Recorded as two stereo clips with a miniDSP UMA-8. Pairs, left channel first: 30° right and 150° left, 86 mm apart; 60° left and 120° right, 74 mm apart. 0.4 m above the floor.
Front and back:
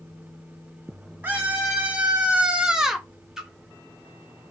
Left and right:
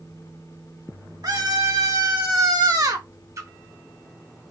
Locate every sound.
1.2 s a scream: 140° right, 2.5 m; by 3.1 s 120° right, 1.2 m
3.4 s a splash: 130° right, 1.1 m